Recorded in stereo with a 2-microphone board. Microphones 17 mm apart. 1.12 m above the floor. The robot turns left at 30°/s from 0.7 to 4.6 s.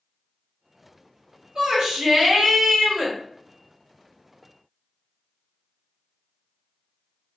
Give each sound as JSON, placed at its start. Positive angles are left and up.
{"t": 1.6, "sound": "a shout", "azimuth_deg": -90, "distance_m": 2.0}